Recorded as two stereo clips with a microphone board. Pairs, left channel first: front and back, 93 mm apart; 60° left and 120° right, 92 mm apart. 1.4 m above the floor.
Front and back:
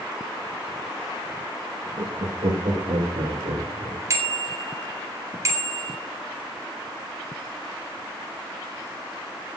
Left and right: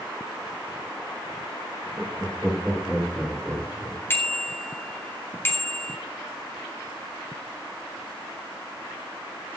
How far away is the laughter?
About 1.8 m.